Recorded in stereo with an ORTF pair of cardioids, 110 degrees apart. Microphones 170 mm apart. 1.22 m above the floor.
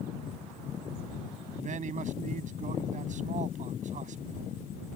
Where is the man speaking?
45° right.